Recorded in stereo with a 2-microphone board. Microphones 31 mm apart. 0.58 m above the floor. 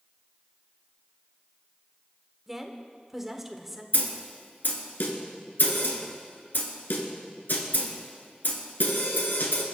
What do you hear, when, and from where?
2.5 s a woman speaking: 10° right (ahead or behind), 1.7 m
3.9 s a snare drum: 85° left, 2.5 m